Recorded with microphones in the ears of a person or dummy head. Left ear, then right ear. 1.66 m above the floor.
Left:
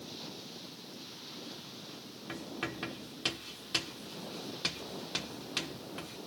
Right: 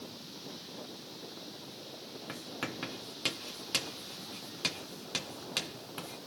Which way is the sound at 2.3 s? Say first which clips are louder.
Left 1 dB; 15° right (ahead or behind).